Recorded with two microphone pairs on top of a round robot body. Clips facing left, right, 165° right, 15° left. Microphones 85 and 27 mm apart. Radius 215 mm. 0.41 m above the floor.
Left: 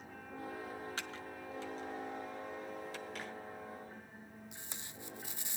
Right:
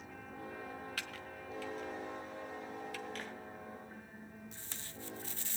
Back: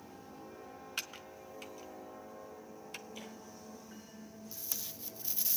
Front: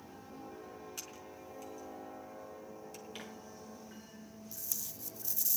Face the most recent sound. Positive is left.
turn(degrees=155)